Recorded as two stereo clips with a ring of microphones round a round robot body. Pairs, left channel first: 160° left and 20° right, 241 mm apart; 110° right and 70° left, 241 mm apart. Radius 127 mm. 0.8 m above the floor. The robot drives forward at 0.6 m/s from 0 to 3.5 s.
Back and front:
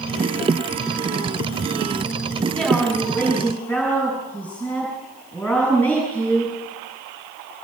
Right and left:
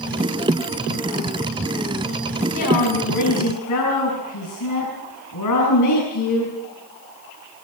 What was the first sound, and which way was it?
A woman speaking, 115° right.